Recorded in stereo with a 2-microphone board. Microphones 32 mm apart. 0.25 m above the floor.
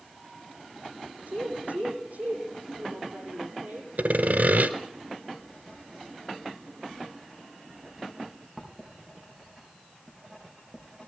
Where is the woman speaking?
70° right (ahead or behind), 9.5 m.